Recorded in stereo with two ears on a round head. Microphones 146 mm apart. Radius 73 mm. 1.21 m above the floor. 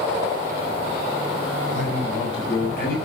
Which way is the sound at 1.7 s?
75° left (ahead or behind).